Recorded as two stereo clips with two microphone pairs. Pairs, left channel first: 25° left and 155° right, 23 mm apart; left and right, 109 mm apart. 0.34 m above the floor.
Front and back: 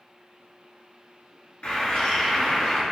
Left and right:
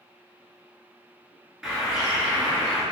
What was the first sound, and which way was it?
A bird, 5° right.